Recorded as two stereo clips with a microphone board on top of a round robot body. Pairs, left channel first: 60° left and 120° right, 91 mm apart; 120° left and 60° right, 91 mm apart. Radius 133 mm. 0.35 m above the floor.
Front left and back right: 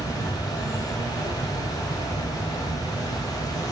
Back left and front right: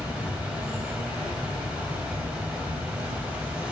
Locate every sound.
0.0 s an insect: 20° left, 1.1 m